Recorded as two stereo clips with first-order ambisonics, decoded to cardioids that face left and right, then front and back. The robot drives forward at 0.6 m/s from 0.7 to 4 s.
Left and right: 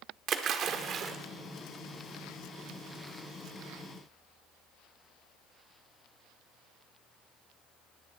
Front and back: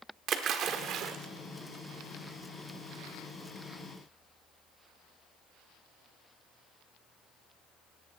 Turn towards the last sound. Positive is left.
turn(degrees=-165)